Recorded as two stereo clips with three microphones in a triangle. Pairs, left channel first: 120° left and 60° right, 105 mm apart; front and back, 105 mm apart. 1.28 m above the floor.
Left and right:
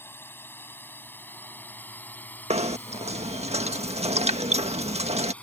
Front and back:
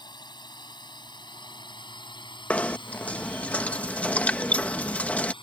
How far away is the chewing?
No chewing in this recording.